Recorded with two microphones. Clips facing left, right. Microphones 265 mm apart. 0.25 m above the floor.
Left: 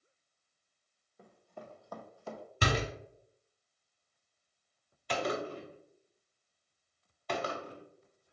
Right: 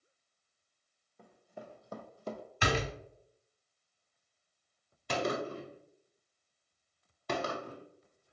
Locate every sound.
1.2 s running footsteps: 5° left (ahead or behind), 0.8 m; by 2.4 s 55° right (ahead or behind), 0.6 m
2.6 s a door slam: 40° left (ahead or behind), 0.9 m
5.1 s a gunshot: 50° right (ahead or behind), 0.7 m